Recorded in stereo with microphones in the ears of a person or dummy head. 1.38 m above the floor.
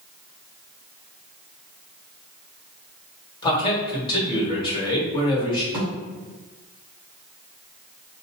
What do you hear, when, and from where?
3.4 s a man speaking: 30° left (ahead or behind), 2 m
5.7 s a thud: 5° right (ahead or behind), 1.9 m